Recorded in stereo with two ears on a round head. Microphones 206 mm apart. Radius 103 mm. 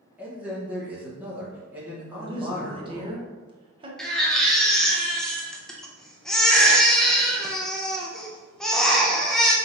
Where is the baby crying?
5° left (ahead or behind), 0.6 m.